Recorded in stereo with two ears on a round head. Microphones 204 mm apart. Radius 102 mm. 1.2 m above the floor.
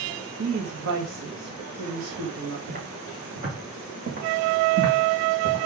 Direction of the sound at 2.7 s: 40° right (ahead or behind).